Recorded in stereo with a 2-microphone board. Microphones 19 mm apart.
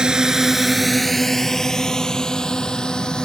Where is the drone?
45° right (ahead or behind); by 3.3 s 40° left (ahead or behind).